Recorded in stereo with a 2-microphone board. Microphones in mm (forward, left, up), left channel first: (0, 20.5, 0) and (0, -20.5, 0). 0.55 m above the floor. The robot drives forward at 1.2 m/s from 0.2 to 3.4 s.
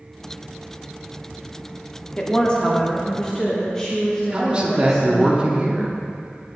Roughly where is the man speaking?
Right.